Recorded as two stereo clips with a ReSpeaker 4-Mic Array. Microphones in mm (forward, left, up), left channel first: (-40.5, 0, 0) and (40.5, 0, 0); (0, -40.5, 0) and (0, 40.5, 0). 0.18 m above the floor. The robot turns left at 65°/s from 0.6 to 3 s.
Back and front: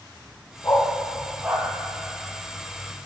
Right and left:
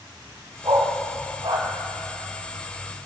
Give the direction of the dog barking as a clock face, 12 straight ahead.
8 o'clock.